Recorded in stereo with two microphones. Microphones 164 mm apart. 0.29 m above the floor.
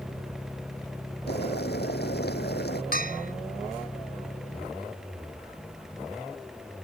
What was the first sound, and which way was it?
Boiling, 85° left.